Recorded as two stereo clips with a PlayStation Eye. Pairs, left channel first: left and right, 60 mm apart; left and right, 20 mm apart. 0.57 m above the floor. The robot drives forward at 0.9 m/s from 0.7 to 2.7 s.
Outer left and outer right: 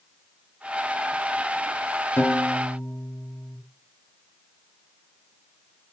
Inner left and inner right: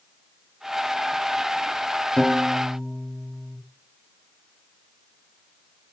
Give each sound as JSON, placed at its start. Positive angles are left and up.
{"t": 2.2, "sound": "a piano", "side_deg": 35, "distance_m": 1.2}